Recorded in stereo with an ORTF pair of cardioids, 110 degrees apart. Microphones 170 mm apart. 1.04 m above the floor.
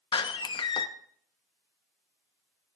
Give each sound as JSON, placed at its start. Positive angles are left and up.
{"t": 0.1, "sound": "a door slam", "azimuth_deg": 30, "distance_m": 0.9}